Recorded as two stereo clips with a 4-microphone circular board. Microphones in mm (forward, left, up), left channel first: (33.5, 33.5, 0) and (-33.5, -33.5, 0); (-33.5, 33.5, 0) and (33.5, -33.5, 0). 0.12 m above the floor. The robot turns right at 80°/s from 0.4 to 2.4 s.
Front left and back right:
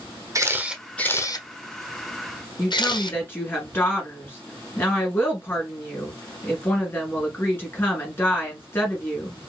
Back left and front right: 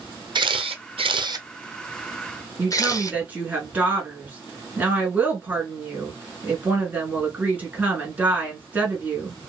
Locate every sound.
0.3 s a camera shutter: 80° right, 0.7 m; by 3.2 s 80° left, 0.7 m
2.6 s a woman speaking: 5° left, 1.7 m